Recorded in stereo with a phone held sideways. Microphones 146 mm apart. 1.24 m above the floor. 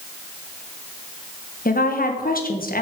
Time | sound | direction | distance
1.6 | a woman speaking | 70° left (ahead or behind) | 1.3 m